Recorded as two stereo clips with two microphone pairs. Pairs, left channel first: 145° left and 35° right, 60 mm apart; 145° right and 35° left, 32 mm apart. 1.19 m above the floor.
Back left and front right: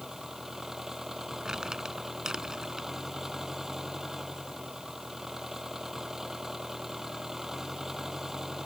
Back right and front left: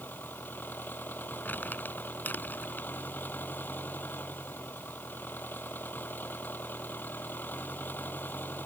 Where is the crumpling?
115° right.